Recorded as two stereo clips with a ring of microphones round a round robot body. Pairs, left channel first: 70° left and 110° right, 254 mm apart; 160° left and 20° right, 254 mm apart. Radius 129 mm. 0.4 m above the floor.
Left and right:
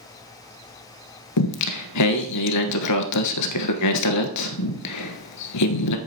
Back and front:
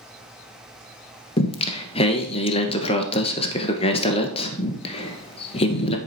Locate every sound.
1.4 s singing: 90° left, 1.1 m